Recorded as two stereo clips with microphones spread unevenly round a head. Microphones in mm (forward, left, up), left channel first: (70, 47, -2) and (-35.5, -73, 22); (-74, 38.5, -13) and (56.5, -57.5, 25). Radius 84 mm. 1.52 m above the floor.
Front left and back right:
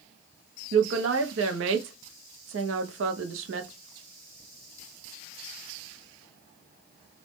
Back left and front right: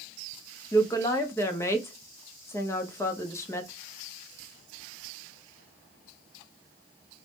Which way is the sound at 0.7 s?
145° right.